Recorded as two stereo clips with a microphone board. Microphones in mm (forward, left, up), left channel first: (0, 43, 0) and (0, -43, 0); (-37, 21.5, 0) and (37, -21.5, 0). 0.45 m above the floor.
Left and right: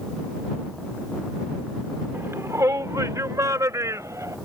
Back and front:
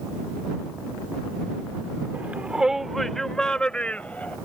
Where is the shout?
70° right; by 4.4 s 140° right.